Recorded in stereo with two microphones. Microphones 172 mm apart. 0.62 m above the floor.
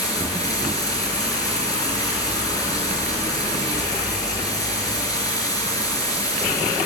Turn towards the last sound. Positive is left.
turn(degrees=20)  # may be behind; listen again after turning